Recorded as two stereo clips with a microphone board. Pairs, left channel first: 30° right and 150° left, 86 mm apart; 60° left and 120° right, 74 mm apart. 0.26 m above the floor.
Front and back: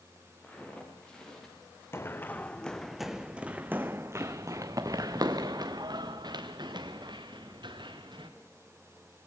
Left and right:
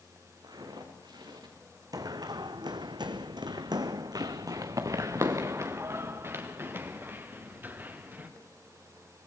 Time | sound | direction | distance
0.4 | footsteps | 105° right | 5.5 m
1.9 | running footsteps | 90° right | 1.1 m